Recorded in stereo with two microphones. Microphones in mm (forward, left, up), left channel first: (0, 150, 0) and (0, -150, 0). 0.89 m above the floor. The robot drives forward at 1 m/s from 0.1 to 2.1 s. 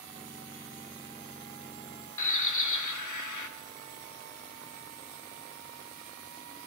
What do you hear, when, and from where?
2.2 s a bird: 75° left (ahead or behind), 1.2 m